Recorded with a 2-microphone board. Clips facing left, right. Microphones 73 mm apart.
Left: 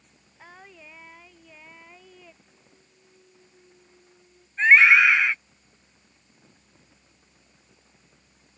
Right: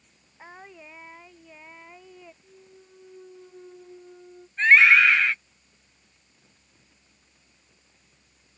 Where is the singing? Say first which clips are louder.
Right 3 dB; 15° right (ahead or behind).